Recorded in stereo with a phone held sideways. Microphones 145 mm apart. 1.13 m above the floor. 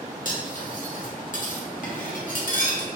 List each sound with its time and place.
0.2 s cutlery clinking: 65° left (ahead or behind), 0.9 m